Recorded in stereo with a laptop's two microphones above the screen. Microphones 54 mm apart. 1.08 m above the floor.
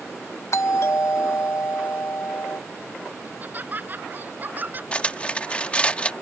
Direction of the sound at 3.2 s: 35° right (ahead or behind).